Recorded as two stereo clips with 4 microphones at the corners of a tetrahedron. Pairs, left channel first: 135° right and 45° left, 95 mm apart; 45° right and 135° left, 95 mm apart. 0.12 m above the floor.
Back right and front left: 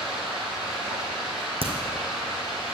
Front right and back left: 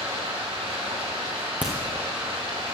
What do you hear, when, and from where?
0.0 s running water: 130° left, 4 m
1.6 s a crack: 60° left, 1.9 m